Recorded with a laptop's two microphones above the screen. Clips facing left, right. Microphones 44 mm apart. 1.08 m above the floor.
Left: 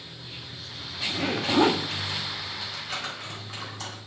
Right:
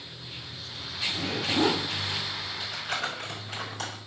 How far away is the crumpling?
About 4 m.